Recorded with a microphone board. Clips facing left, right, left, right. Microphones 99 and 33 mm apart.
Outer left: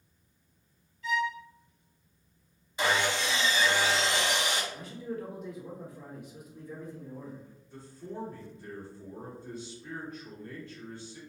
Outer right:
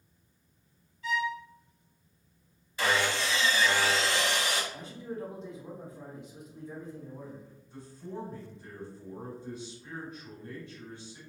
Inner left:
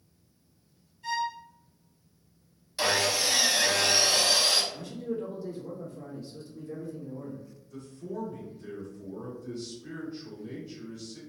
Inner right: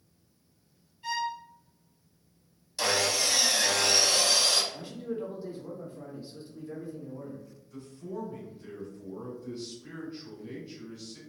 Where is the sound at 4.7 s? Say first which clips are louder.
Outer left 1 dB, inner left 2 dB; 25° right (ahead or behind), 1.1 m.